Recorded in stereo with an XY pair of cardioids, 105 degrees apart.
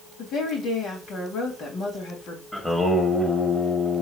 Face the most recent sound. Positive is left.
turn(degrees=5)